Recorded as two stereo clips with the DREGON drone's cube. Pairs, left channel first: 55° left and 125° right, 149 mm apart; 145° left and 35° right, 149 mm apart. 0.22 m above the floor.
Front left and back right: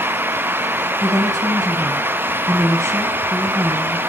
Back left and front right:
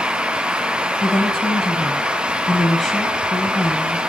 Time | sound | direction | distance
1.0 | a woman speaking | 130° right | 1.1 m